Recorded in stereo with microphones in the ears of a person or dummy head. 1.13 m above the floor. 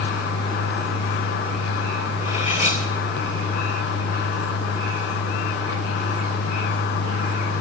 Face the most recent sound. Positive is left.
turn(degrees=40)  # may be behind; listen again after turning